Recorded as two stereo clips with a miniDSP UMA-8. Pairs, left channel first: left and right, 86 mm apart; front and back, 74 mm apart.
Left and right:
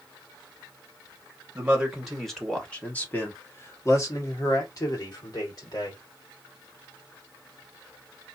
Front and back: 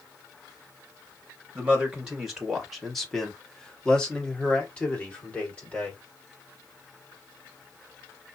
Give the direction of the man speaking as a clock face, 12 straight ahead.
4 o'clock.